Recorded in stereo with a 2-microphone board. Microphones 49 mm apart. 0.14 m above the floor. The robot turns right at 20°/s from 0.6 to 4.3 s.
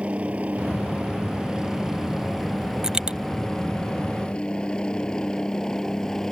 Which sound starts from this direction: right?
A helicopter, at 0.0 s.